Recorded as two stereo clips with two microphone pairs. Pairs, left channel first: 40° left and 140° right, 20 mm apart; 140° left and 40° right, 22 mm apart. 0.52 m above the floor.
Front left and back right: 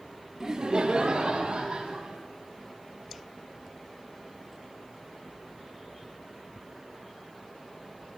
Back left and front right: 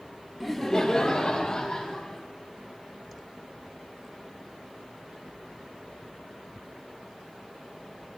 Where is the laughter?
125° right, 0.7 m; by 2.2 s 155° right, 3 m.